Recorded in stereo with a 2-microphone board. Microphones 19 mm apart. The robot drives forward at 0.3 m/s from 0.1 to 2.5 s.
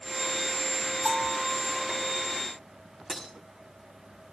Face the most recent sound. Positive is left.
turn(degrees=-30)  # may be behind; listen again after turning